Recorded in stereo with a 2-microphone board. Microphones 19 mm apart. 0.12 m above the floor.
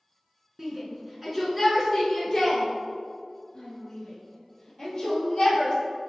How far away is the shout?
About 1.6 m.